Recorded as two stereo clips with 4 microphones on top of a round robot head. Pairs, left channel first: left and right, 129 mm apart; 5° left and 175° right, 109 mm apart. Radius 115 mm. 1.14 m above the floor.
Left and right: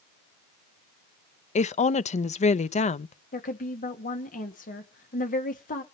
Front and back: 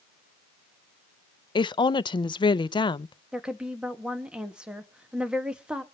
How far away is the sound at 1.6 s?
About 0.6 m.